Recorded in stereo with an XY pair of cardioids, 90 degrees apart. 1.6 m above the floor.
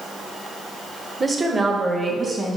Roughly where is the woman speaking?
Ahead right.